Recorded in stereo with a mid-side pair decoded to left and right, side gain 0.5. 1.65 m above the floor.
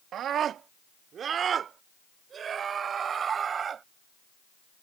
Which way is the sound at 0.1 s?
60° right.